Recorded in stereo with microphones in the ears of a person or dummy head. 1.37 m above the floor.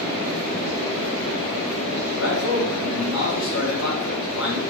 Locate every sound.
2.2 s a man speaking: 75° left (ahead or behind), 1.7 m